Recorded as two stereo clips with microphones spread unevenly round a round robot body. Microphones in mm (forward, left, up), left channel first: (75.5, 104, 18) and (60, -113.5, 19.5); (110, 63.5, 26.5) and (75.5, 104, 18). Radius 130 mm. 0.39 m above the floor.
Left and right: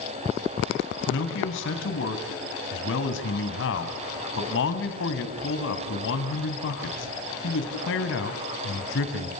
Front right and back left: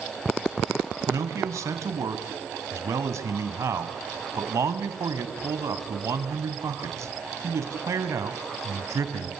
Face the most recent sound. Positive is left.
turn(degrees=125)